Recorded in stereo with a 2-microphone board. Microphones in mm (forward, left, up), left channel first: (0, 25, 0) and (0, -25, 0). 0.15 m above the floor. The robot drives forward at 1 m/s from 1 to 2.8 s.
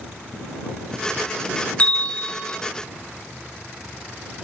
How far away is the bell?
About 0.9 m.